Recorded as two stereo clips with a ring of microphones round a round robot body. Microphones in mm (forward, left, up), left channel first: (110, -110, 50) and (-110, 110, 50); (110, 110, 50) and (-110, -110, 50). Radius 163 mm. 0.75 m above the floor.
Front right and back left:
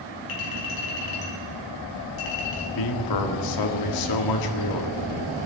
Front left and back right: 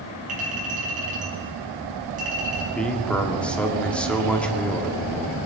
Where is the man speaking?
40° right, 1.4 m.